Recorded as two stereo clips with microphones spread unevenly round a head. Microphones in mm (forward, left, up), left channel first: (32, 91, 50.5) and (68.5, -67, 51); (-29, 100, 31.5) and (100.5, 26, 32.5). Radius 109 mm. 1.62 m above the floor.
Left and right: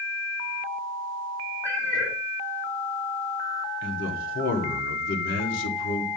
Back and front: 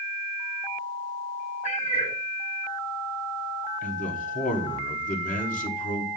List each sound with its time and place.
1.6 s a cat meowing: straight behind, 1.3 m
3.8 s a man speaking: 120° left, 1.3 m